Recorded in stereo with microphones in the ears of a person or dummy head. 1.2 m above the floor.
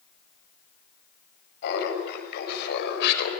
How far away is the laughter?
About 6.5 m.